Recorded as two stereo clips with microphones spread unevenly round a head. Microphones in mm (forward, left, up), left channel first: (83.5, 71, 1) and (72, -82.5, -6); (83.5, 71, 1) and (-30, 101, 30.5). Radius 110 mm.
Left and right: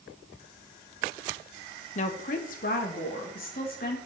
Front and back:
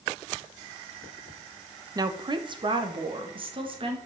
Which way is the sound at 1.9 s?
125° left.